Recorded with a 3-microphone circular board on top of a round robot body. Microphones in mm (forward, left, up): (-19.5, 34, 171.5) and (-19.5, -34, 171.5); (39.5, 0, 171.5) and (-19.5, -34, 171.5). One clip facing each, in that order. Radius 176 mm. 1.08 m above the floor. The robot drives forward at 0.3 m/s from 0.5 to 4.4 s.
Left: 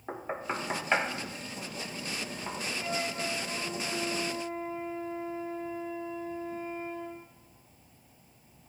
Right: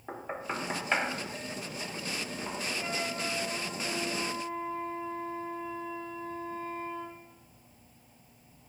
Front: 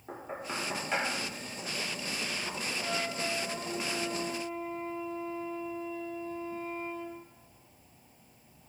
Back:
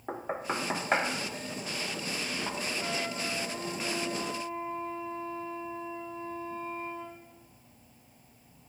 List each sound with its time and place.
0.1 s knocking: 170° left, 1.0 m; by 2.7 s 175° left, 1.6 m
2.8 s a flute: 170° left, 4.5 m